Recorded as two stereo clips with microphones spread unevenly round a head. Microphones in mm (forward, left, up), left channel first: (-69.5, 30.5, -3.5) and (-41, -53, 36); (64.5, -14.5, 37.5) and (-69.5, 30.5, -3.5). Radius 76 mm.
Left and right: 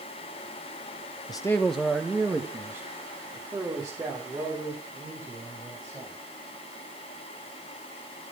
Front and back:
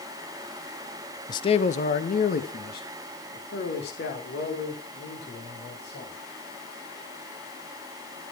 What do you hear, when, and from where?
1.3 s a man speaking: 40° left, 0.9 m; by 6.1 s 10° right, 8 m